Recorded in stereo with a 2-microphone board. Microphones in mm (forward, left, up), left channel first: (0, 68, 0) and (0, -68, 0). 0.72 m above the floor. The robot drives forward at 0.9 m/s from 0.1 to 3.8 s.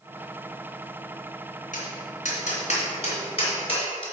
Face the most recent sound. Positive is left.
turn(degrees=45)  # may be behind; listen again after turning